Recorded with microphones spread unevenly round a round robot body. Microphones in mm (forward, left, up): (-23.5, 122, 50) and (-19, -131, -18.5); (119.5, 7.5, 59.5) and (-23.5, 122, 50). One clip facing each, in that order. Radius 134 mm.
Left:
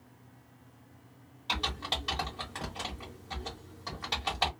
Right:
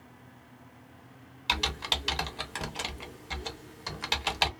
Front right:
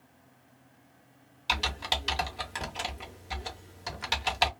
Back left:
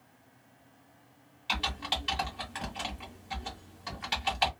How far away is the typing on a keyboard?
About 0.8 m.